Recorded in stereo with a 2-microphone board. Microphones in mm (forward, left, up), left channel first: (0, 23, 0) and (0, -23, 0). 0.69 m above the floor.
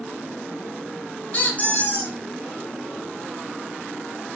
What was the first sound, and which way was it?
A squeak, 35° left (ahead or behind).